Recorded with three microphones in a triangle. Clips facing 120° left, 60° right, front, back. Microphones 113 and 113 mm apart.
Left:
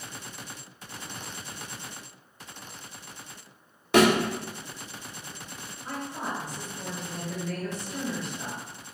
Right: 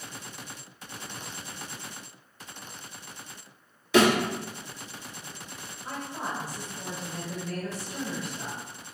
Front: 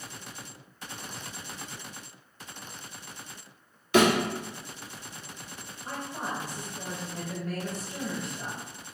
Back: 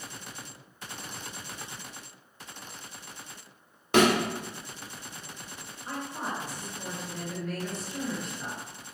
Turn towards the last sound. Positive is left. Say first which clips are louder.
# left 1 dB, even
turn(degrees=20)